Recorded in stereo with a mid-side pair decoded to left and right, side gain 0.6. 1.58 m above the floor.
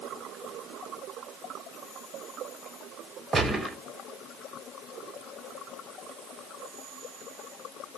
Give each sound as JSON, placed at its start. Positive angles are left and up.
{"t": 3.3, "sound": "a gunshot", "azimuth_deg": -20, "distance_m": 0.9}